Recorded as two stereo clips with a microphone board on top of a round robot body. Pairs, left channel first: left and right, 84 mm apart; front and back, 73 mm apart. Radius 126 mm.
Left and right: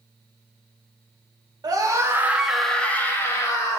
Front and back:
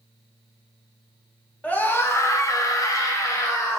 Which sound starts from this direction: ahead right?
A scream, at 1.6 s.